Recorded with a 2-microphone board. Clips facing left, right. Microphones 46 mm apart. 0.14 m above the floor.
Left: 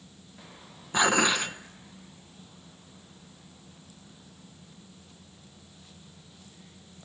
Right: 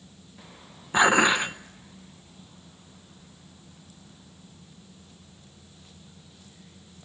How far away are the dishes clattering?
About 0.9 m.